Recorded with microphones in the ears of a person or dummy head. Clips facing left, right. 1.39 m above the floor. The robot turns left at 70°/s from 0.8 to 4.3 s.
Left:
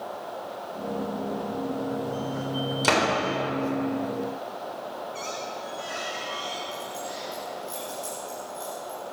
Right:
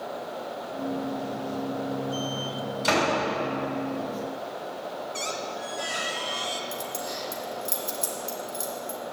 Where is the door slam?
65° left (ahead or behind), 3.5 m; by 3.1 s 45° left (ahead or behind), 3.5 m.